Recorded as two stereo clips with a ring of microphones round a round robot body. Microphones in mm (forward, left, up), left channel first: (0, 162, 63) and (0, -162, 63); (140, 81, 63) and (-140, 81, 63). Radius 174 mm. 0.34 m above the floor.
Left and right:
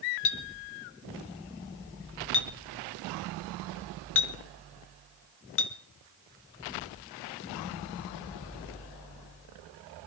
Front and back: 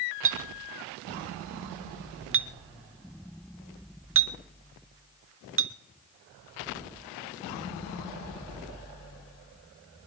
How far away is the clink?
About 1.1 m.